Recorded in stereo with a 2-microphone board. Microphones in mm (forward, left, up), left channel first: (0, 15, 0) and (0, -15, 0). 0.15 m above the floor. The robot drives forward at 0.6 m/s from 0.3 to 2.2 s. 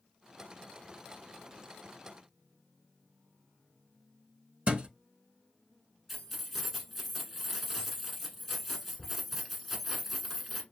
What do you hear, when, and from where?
4.7 s a thud: 40° right (ahead or behind), 0.6 m
6.1 s keys jangling: centre (ahead or behind), 1.1 m